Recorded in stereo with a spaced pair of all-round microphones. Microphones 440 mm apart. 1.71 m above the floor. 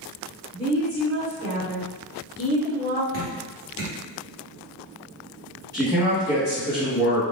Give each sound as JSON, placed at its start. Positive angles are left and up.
{"t": 0.5, "sound": "a woman speaking", "side_deg": -40, "distance_m": 1.8}
{"t": 3.1, "sound": "dripping", "side_deg": -30, "distance_m": 1.6}
{"t": 5.7, "sound": "a man speaking", "side_deg": -10, "distance_m": 1.4}